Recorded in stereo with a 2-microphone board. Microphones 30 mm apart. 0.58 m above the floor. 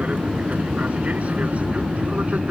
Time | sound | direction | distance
0.0 | an aircraft | 50° right (ahead or behind) | ?